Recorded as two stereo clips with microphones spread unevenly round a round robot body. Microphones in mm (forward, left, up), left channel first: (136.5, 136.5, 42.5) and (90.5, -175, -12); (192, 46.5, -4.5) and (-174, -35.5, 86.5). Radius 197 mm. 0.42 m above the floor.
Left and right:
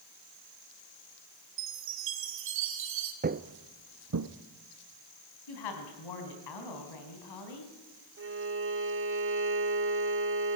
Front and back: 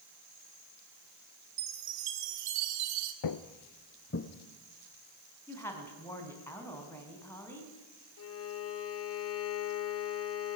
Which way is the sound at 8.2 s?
45° right.